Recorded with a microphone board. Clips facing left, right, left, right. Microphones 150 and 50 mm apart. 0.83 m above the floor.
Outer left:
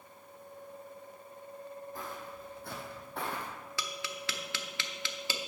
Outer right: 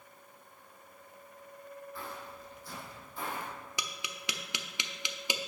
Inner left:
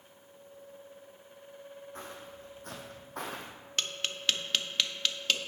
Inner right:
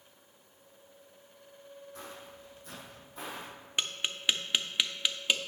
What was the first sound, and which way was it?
Footsteps, 40° left (ahead or behind).